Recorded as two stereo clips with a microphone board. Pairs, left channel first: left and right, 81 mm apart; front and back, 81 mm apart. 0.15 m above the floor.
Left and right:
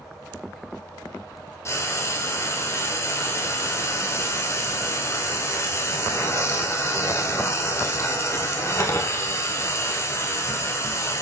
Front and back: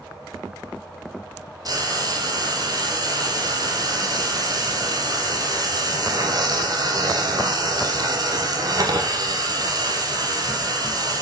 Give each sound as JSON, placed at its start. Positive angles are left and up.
{"t": 1.6, "sound": "frying", "azimuth_deg": 145, "distance_m": 2.5}